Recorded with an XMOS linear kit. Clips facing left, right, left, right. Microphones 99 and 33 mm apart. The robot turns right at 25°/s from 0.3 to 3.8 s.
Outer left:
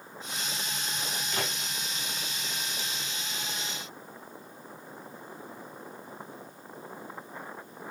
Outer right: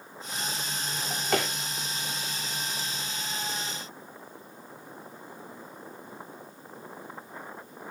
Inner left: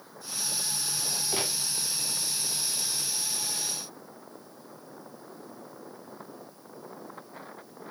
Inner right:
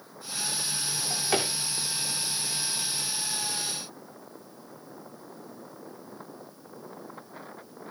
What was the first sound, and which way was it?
A drawer, 75° right (ahead or behind).